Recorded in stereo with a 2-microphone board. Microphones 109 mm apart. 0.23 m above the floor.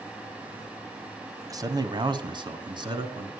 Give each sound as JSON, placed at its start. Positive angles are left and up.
{"t": 1.5, "sound": "a man speaking", "side_deg": -30, "distance_m": 1.2}